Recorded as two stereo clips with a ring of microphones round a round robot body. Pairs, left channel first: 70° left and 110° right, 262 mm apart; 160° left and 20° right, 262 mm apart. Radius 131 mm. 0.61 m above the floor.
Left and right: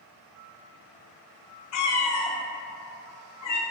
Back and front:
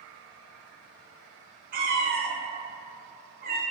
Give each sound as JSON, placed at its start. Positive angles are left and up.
{"t": 1.7, "sound": "a cat meowing", "azimuth_deg": 35, "distance_m": 0.6}